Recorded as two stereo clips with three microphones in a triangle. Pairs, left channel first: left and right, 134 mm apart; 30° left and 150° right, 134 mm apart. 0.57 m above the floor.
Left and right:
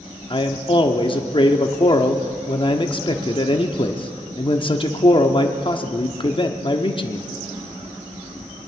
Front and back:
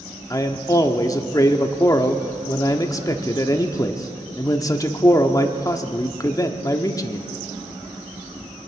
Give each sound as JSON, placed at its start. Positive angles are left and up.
{"t": 0.3, "sound": "a man speaking", "azimuth_deg": 75, "distance_m": 0.9}